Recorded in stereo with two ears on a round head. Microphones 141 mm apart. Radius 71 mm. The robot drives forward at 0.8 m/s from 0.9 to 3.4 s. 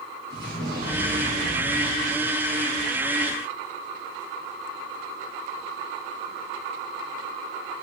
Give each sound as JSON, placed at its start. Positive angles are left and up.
{"t": 0.3, "sound": "an explosion", "side_deg": -60, "distance_m": 10.0}